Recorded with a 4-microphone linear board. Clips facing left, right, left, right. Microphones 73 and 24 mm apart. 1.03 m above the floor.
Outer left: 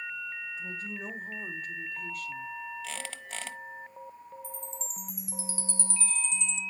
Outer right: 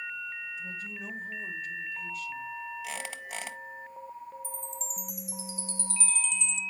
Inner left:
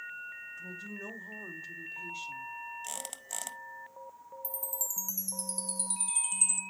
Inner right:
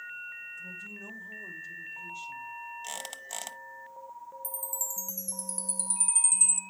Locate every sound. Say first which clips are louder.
0.6 s a woman speaking: outer left 1 dB, inner right 1 dB; 40° left (ahead or behind), 2.5 m; by 2.5 s 60° left (ahead or behind), 1.7 m
2.8 s a squeak: outer right 2 dB, inner right 2 dB; 10° right (ahead or behind), 0.8 m
4.4 s a chime: outer right 2 dB, inner right 1 dB; 35° left (ahead or behind), 0.9 m